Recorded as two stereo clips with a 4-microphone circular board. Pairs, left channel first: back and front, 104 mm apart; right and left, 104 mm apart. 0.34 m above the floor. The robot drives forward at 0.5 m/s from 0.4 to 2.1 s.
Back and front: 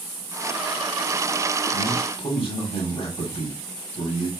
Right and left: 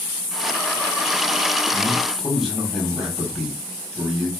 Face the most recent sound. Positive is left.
turn(degrees=175)